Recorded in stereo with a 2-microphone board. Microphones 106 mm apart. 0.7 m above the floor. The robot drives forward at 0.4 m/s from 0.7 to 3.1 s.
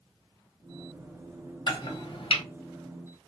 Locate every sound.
1.7 s chopping: 40° left (ahead or behind), 0.9 m; by 2.4 s 60° left (ahead or behind), 0.7 m